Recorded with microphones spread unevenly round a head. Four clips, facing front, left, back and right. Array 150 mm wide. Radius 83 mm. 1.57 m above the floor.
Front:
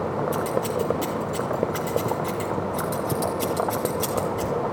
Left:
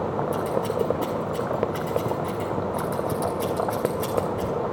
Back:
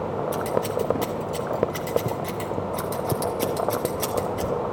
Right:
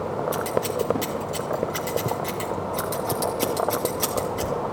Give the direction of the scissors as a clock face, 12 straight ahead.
4 o'clock.